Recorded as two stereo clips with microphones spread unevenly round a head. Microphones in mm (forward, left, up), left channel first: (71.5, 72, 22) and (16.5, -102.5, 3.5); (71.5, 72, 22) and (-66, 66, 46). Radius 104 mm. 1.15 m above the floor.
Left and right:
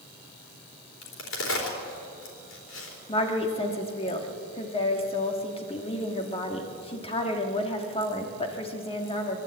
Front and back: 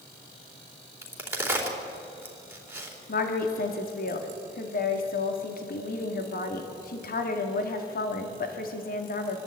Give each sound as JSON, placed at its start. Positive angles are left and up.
{"t": 1.0, "sound": "a crack", "azimuth_deg": 105, "distance_m": 4.0}
{"t": 3.1, "sound": "a woman speaking", "azimuth_deg": 10, "distance_m": 2.0}